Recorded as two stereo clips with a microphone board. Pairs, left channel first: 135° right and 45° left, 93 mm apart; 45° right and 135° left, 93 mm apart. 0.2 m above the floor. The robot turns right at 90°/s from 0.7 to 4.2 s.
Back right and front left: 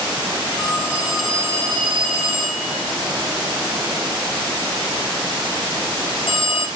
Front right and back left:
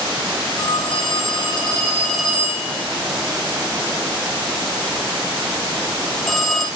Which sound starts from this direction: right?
A phone ringing, at 0.6 s.